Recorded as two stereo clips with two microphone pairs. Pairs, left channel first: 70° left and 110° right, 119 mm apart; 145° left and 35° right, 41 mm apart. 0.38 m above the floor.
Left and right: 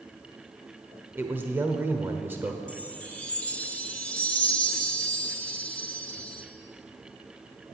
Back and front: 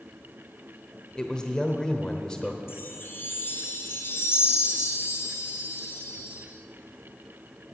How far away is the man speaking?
About 1.0 m.